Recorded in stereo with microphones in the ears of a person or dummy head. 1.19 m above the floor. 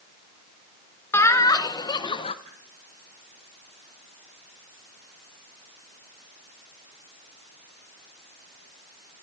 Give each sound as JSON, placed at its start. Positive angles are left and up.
{"t": 1.1, "sound": "laughter", "side_deg": 15, "distance_m": 1.5}
{"t": 2.5, "sound": "a whoosh", "side_deg": -30, "distance_m": 4.5}